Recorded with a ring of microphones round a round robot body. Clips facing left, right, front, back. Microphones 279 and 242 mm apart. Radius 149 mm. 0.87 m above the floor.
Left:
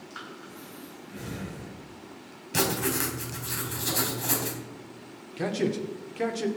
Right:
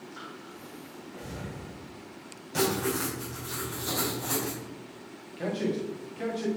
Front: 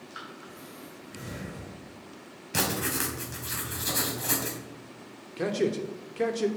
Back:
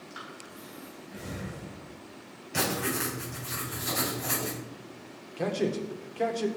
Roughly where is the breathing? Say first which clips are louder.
Even, even; left.